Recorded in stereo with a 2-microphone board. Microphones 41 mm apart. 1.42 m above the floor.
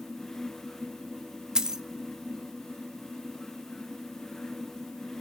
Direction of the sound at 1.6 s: 15° right (ahead or behind).